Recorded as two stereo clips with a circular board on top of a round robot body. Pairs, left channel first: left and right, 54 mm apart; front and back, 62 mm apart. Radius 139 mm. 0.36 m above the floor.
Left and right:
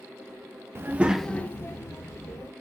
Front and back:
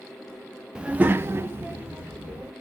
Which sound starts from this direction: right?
A child speaking, at 0.8 s.